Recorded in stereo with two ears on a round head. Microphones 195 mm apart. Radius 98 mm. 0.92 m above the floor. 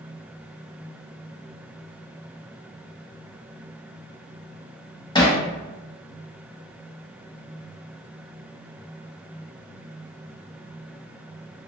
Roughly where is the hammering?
Centre.